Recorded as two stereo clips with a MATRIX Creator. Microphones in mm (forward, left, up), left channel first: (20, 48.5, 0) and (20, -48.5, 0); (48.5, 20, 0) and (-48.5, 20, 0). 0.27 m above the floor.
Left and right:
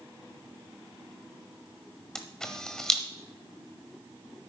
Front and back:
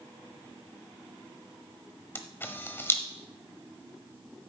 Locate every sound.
2.1 s a camera shutter: 15° left, 0.9 m